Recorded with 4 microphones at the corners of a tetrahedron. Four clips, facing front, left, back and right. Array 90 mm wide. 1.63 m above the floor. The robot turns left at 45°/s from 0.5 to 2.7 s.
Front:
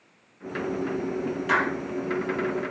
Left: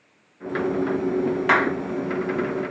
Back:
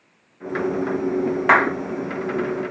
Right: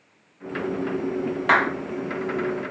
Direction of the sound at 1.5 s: 175° right.